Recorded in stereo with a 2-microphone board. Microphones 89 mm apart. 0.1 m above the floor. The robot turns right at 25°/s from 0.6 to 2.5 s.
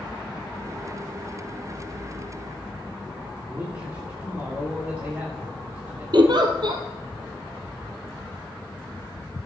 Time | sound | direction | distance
3.5 | a man speaking | 25° right (ahead or behind) | 7.5 m
6.1 | a giggle | 55° right (ahead or behind) | 2 m